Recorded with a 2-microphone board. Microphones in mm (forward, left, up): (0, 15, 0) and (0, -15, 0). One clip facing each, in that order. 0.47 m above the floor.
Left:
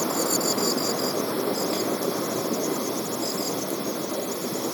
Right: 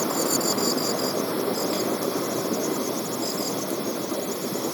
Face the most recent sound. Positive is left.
No sound to turn to.